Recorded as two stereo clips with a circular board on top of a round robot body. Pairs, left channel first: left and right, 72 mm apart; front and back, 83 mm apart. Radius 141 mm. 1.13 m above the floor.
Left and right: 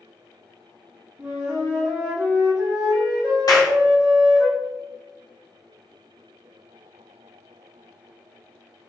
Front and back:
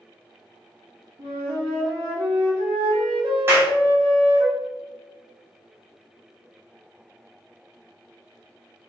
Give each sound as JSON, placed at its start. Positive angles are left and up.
{"t": 1.2, "sound": "a flute", "azimuth_deg": -155, "distance_m": 0.7}
{"t": 3.5, "sound": "a clap", "azimuth_deg": 120, "distance_m": 1.1}